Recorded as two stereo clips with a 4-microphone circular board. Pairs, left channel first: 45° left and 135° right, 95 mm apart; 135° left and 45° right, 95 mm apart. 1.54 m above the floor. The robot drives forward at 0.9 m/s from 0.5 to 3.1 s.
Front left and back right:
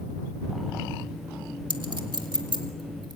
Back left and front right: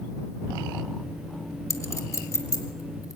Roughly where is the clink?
Behind.